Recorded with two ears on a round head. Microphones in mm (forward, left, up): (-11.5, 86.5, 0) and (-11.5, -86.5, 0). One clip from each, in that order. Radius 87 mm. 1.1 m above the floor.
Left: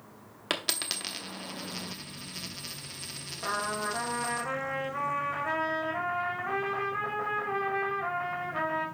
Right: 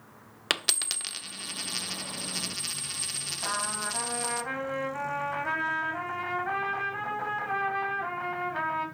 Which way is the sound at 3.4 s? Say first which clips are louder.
Left 2 dB; 5° right (ahead or behind).